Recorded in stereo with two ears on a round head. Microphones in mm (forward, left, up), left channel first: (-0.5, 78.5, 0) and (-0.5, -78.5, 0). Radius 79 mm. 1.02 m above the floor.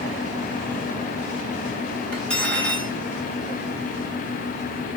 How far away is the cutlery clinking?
About 2.5 m.